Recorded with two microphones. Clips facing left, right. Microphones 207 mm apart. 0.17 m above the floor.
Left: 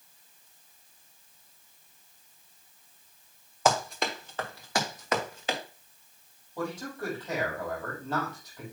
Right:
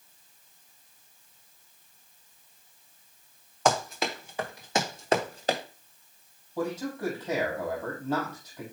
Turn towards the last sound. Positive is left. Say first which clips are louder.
# right 4 dB
turn(degrees=-10)  # may be behind; listen again after turning